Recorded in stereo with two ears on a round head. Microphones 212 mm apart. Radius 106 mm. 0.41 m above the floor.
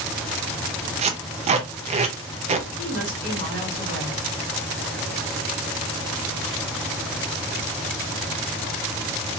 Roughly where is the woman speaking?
Left.